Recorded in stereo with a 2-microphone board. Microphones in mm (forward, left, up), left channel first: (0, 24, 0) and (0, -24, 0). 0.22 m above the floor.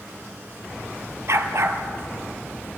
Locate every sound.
1.3 s a dog barking: 70° right (ahead or behind), 1.8 m